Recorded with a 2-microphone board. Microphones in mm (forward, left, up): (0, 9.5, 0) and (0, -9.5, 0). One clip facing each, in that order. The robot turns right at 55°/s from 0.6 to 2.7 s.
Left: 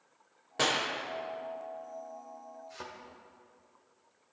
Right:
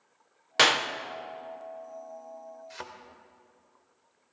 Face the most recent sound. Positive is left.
turn(degrees=-40)  # may be behind; listen again after turning